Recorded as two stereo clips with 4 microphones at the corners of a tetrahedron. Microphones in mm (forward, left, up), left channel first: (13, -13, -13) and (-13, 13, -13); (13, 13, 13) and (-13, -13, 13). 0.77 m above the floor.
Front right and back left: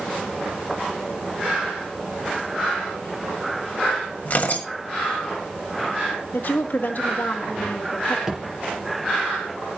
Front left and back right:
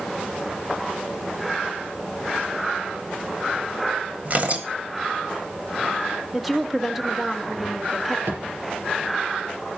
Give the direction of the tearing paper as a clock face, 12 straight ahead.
3 o'clock.